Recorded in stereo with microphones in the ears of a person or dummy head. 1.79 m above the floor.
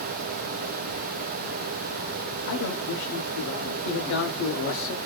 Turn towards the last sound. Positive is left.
turn(degrees=75)  # may be behind; listen again after turning